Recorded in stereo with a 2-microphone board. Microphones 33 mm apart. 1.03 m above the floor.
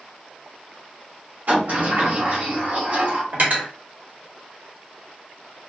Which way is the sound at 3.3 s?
65° right (ahead or behind).